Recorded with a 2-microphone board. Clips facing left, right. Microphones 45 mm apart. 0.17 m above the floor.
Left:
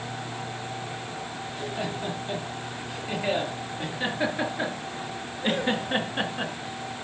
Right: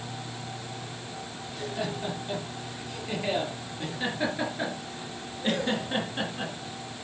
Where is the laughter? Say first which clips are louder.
Even; 10° left (ahead or behind), 4 m; by 7.0 s 30° left (ahead or behind), 1.7 m.